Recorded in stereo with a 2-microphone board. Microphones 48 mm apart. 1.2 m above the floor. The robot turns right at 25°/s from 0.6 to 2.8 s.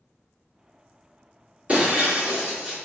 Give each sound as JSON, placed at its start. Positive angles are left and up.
{"t": 1.7, "sound": "breaking glass", "side_deg": -30, "distance_m": 1.9}